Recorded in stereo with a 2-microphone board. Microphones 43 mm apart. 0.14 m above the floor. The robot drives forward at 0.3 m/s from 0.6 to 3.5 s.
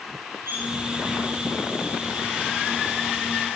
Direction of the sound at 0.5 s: 70° right (ahead or behind).